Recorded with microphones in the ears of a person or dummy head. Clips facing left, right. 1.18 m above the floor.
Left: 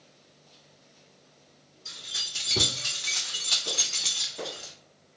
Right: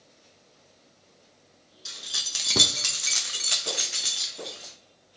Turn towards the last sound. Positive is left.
turn(degrees=10)  # may be behind; listen again after turning